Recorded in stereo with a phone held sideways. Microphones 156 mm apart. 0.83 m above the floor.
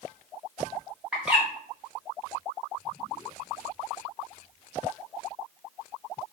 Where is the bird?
5° right (ahead or behind), 0.8 m.